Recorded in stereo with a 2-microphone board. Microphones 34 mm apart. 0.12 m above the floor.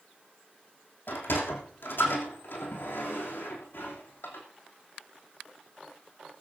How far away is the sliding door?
About 3.5 m.